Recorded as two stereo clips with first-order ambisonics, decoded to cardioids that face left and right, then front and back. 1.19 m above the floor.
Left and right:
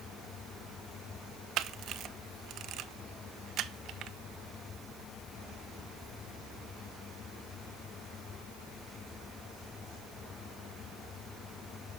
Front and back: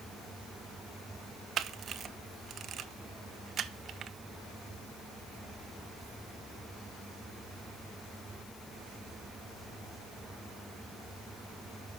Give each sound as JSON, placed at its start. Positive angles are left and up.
{"t": 1.6, "sound": "a camera shutter", "azimuth_deg": -125, "distance_m": 0.6}